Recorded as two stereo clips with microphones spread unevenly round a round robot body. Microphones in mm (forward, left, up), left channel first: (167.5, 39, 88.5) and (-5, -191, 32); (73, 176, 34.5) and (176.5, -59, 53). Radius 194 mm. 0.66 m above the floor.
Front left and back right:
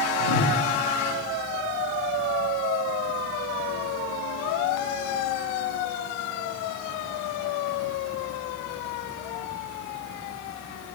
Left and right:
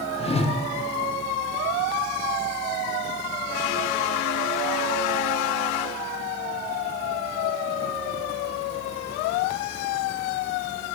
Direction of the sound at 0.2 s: 45° left.